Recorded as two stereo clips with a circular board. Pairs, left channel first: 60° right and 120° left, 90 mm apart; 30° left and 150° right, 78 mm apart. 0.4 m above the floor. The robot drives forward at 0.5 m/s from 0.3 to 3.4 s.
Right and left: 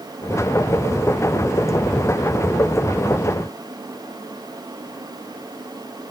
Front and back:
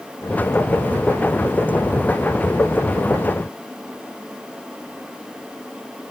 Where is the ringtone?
No ringtone in this recording.